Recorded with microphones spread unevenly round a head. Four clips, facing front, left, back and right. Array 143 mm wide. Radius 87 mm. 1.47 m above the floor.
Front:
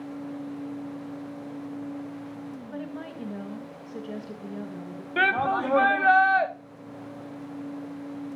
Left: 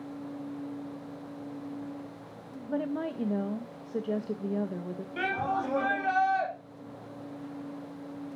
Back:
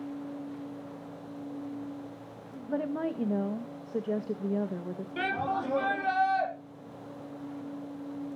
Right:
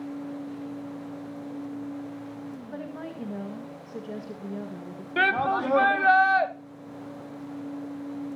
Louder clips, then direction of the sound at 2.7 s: Left 9 dB, back 9 dB; 145° left.